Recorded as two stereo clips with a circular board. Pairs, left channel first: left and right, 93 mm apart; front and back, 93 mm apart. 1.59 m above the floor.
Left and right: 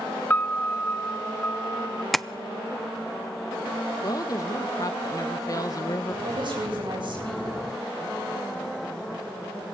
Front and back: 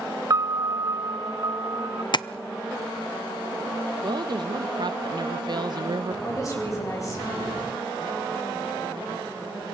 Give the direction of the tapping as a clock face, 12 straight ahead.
12 o'clock.